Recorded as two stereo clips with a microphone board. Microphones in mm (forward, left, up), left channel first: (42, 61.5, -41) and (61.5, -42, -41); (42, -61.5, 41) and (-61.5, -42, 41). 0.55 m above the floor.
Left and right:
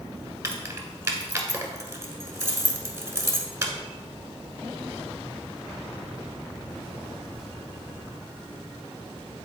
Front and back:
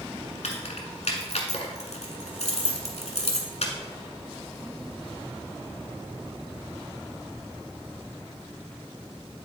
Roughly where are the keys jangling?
Ahead.